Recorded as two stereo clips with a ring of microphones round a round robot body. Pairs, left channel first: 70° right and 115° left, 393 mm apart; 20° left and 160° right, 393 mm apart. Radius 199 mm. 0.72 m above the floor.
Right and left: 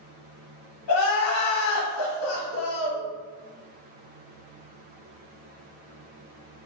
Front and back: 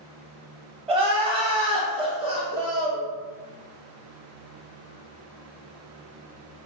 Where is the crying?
90° right, 0.8 m.